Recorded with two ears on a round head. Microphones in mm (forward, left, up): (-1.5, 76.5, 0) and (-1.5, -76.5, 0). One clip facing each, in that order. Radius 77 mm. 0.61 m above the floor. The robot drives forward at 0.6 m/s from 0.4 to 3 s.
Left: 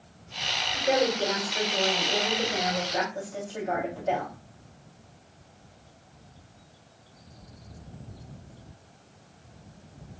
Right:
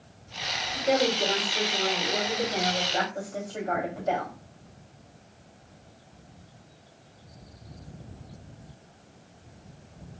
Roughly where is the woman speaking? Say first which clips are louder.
Even; centre.